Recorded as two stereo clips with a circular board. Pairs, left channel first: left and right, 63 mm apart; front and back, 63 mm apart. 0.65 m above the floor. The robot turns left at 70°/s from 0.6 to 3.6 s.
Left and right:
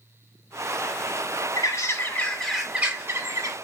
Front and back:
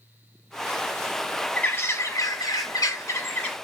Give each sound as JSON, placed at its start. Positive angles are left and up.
{"t": 1.6, "sound": "a bird", "azimuth_deg": 65, "distance_m": 2.5}